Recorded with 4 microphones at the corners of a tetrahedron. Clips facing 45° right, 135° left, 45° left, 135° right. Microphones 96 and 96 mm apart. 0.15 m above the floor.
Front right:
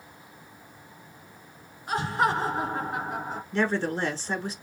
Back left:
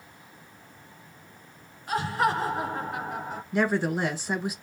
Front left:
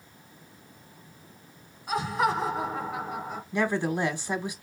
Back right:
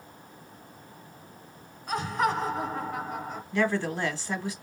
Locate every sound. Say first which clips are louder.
1.9 s laughter: even, front left 1 dB; 35° right, 1.3 m
3.5 s a woman speaking: back left 1 dB, even; 80° left, 1.0 m